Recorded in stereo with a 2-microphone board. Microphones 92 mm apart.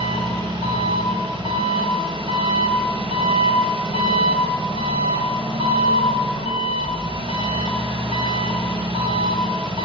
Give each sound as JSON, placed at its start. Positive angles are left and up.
{"t": 0.0, "sound": "an engine running", "side_deg": -75, "distance_m": 1.3}